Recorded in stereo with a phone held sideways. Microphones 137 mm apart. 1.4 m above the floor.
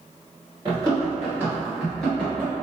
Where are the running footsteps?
30° right (ahead or behind), 1.5 m; by 2.5 s 15° left (ahead or behind), 1.4 m.